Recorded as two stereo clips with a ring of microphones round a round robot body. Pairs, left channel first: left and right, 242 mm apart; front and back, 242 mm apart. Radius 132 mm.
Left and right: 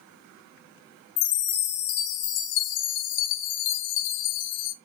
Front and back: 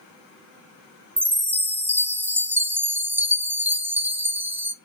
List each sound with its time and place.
1.2 s a chime: 100° left, 1.1 m